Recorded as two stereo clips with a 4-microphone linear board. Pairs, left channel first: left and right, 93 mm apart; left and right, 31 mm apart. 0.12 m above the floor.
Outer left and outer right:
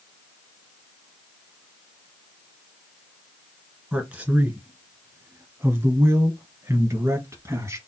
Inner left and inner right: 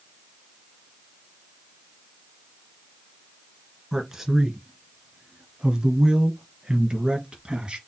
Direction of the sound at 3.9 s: 10° right (ahead or behind).